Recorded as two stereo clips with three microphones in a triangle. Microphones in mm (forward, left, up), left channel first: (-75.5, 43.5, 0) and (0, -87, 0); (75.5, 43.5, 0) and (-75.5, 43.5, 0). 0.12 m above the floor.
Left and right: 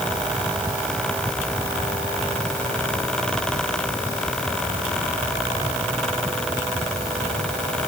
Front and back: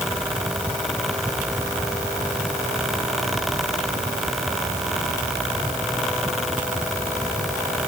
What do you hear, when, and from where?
Only background noise.